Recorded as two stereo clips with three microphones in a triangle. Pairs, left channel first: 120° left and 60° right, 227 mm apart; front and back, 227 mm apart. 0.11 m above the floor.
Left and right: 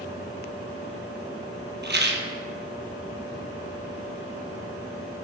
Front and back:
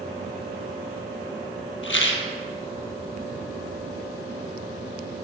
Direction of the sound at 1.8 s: 25° right.